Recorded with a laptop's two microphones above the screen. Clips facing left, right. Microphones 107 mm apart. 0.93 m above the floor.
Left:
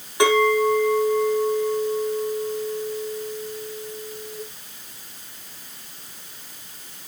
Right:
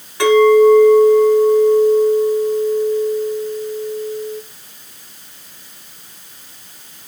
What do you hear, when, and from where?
0.2 s a clink: 20° left (ahead or behind), 7 m